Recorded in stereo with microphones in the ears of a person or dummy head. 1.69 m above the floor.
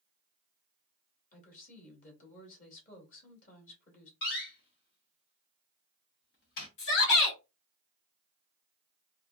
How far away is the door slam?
About 1.2 m.